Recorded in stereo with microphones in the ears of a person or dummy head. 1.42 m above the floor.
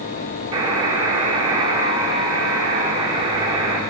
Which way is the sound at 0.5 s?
35° right (ahead or behind).